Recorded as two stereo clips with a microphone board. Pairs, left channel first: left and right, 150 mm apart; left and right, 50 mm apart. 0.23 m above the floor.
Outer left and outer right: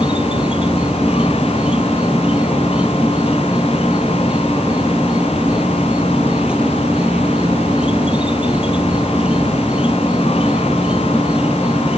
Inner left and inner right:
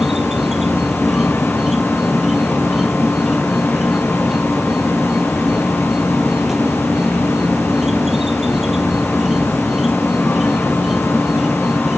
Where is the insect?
5° right (ahead or behind).